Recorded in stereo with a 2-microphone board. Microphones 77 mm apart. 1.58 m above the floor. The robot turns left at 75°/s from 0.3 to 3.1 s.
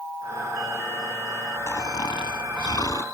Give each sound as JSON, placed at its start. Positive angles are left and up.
{"t": 1.7, "sound": "snoring", "azimuth_deg": 145}